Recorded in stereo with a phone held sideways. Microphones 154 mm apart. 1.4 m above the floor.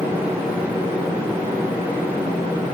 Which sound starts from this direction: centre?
A fan, at 0.0 s.